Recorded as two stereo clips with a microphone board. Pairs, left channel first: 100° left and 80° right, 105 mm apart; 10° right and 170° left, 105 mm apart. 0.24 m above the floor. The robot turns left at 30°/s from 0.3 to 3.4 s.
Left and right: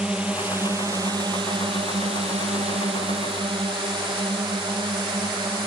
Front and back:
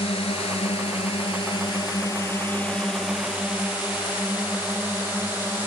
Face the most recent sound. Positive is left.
turn(degrees=-120)